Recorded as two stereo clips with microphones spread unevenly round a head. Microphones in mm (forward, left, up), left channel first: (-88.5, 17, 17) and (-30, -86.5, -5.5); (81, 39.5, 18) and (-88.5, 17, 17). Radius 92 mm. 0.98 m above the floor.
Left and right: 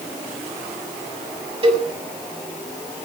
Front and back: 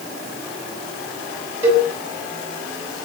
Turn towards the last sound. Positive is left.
turn(degrees=-95)